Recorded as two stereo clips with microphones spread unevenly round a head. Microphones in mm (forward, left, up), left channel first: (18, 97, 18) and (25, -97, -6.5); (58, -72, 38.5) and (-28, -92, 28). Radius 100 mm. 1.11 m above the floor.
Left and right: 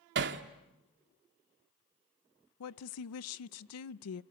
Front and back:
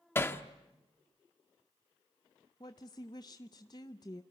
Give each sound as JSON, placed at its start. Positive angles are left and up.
{"t": 0.1, "sound": "hammering", "azimuth_deg": -50, "distance_m": 1.4}
{"t": 2.6, "sound": "a woman speaking", "azimuth_deg": 80, "distance_m": 0.6}